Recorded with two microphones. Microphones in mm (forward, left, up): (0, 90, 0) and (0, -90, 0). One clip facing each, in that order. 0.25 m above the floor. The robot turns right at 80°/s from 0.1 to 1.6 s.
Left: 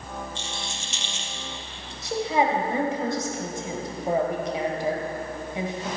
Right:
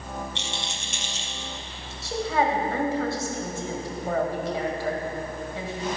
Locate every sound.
0.3 s a rattle: 75° right (ahead or behind), 1.6 m; by 1.9 s 5° right (ahead or behind), 1.6 m
2.0 s a woman speaking: 20° left (ahead or behind), 1.4 m